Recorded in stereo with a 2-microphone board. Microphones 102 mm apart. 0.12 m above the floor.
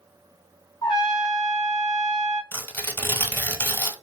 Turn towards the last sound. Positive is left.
turn(degrees=20)  # may be behind; listen again after turning